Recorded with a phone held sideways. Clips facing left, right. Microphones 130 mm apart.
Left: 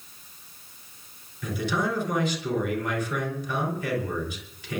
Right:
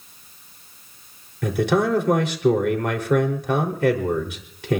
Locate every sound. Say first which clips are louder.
1.4 s a man speaking: right 8 dB; 70° right (ahead or behind), 3.5 m